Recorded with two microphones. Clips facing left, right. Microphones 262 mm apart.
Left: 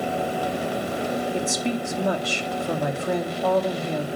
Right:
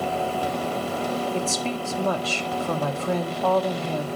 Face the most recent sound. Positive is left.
turn(degrees=15)  # may be behind; listen again after turning